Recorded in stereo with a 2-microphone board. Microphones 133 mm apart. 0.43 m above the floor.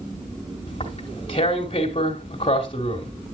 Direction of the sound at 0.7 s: 40° left (ahead or behind).